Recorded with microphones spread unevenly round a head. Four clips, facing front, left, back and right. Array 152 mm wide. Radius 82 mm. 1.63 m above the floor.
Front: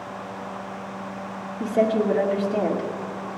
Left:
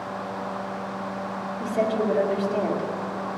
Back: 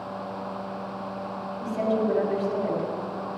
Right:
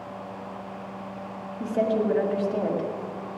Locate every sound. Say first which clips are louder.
1.6 s a woman speaking: even, front 5 dB; 5° right, 2.5 m